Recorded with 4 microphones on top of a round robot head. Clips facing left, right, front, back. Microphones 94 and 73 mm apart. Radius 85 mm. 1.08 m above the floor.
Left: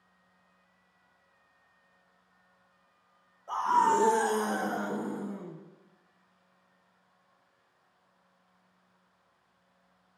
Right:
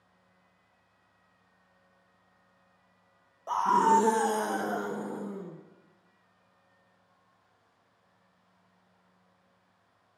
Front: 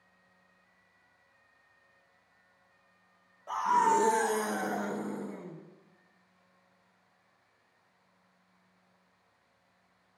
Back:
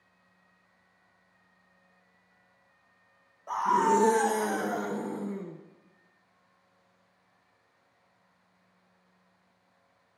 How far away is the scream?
About 0.5 m.